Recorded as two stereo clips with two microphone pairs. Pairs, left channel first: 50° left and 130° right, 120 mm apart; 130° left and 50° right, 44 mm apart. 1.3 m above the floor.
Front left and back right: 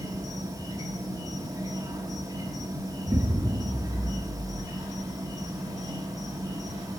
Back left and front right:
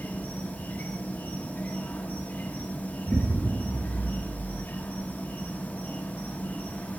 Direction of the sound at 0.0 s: Straight behind.